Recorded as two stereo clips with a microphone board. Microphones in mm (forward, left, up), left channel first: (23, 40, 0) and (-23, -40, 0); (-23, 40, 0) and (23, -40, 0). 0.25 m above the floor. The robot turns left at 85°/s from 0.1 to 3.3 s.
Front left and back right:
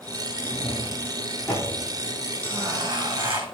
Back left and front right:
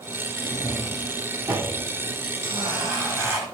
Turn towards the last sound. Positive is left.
turn(degrees=-125)